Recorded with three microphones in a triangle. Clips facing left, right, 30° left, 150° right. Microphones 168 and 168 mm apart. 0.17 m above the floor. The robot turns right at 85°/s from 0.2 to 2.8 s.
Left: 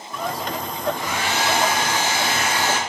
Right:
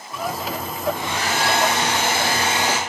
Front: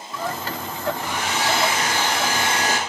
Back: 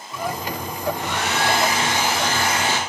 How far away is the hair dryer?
About 0.6 m.